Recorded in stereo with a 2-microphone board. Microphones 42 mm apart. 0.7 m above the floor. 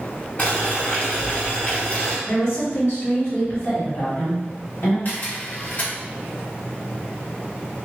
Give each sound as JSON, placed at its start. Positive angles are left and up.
{"t": 0.4, "sound": "boiling", "side_deg": 40, "distance_m": 1.7}
{"t": 2.3, "sound": "a woman speaking", "side_deg": 60, "distance_m": 2.0}
{"t": 5.0, "sound": "a camera shutter", "side_deg": 55, "distance_m": 1.5}